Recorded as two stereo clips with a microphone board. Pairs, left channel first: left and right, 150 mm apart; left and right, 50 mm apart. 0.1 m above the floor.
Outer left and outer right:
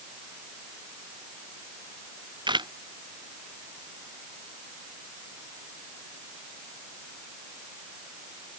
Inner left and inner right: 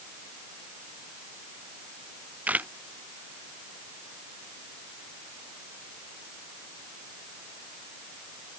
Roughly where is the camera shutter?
Right.